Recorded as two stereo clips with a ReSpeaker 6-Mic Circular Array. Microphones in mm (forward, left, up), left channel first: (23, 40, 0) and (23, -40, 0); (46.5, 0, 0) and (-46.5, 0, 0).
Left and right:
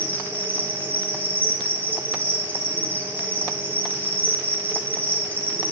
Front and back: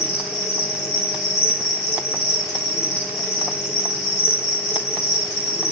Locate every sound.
0.0 s an insect: 20° left, 5 m